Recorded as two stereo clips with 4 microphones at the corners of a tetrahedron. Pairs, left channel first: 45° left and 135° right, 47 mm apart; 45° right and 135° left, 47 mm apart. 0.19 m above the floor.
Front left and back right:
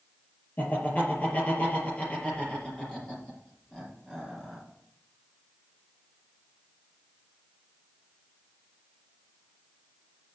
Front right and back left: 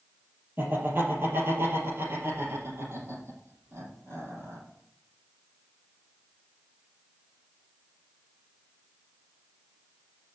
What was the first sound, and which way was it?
Laughter, 95° left.